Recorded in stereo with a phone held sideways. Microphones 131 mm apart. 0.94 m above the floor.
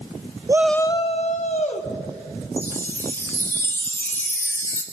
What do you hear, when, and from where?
0.5 s a shout: 30° right (ahead or behind), 0.5 m; by 1.9 s 70° left (ahead or behind), 1.8 m
2.6 s a chime: 20° left (ahead or behind), 1.5 m